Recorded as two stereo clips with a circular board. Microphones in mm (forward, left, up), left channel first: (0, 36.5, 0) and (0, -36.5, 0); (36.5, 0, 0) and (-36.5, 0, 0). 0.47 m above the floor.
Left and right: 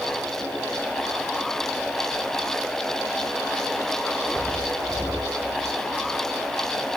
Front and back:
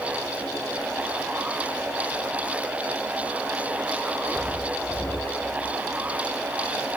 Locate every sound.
Only background noise.